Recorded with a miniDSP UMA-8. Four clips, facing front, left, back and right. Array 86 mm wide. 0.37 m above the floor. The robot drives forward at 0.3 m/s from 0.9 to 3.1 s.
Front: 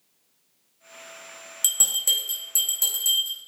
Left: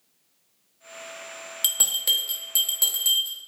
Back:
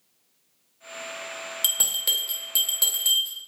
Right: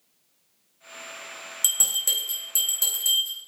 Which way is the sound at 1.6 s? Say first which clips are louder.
Left 3 dB, back 1 dB; 120° left.